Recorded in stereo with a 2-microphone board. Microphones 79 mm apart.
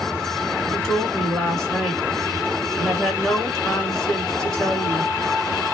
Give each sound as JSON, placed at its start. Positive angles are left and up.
{"t": 0.7, "sound": "a woman speaking", "side_deg": 5, "distance_m": 1.5}